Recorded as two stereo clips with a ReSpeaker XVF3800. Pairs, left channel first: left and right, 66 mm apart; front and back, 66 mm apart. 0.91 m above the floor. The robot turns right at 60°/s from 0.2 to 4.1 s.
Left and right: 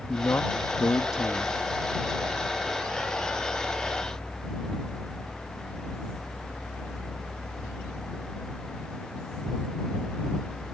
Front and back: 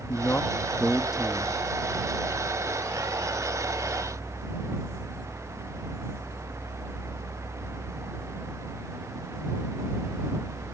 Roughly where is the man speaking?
Ahead left.